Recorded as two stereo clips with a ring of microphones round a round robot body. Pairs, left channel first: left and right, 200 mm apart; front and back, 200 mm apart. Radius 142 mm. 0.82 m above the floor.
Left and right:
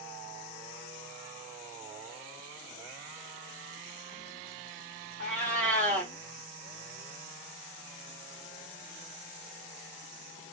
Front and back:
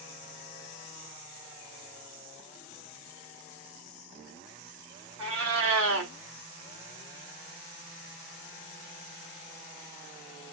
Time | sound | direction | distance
5.2 | a cat meowing | 155° right | 0.7 m